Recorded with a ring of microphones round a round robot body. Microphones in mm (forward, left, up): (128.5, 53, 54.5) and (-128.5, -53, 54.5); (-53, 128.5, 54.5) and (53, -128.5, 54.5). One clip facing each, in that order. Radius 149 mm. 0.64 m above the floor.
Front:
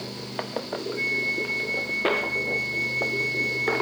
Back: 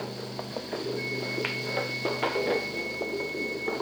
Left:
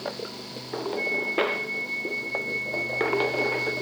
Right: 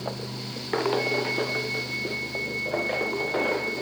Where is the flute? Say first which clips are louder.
Even, right 1 dB; 40° left, 2.5 m.